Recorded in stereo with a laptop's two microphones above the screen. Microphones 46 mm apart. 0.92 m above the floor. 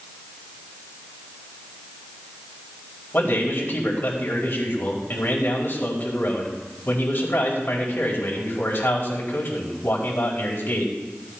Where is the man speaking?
45° left (ahead or behind), 4.5 m.